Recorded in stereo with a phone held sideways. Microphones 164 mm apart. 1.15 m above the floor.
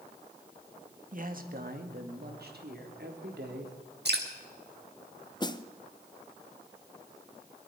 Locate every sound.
1.1 s a man speaking: 55° right (ahead or behind), 1.7 m; by 3.8 s 85° right, 3 m
4.0 s dripping: 80° right, 2.0 m
5.4 s a snare drum: 25° left (ahead or behind), 0.6 m